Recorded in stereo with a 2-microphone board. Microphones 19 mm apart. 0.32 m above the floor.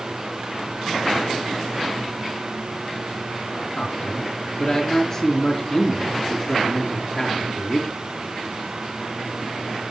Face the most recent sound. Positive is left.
turn(degrees=30)  # may be behind; listen again after turning